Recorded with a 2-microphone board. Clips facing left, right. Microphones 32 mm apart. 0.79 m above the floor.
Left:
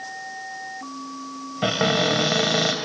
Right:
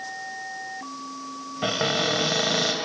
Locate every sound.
1.6 s a cupboard door: 15° left (ahead or behind), 1.1 m